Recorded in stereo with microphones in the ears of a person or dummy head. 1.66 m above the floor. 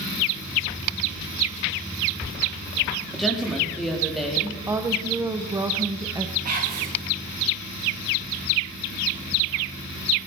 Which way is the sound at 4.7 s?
20° right (ahead or behind).